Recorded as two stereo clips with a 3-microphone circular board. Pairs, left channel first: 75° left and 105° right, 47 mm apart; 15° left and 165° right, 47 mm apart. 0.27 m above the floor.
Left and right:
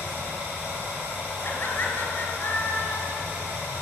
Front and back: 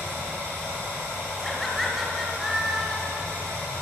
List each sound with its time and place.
0.0 s running water: 155° right, 4 m
1.4 s laughter: 110° left, 2 m